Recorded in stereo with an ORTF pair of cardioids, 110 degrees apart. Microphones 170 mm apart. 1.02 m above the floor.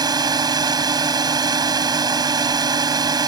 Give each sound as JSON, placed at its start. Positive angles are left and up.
{"t": 0.0, "sound": "a drone", "azimuth_deg": -25}